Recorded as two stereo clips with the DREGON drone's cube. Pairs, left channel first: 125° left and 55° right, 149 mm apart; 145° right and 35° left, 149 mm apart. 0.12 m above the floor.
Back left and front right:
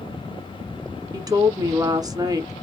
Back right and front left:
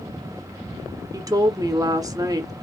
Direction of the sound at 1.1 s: 10° right.